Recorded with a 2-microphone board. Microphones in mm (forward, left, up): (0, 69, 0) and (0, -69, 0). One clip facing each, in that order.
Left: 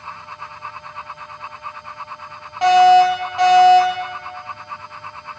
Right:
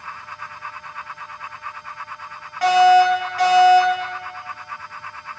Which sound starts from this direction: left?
A fire alarm, at 2.6 s.